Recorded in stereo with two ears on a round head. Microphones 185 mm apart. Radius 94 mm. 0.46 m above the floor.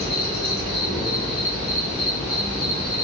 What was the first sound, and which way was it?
An insect, 25° right (ahead or behind).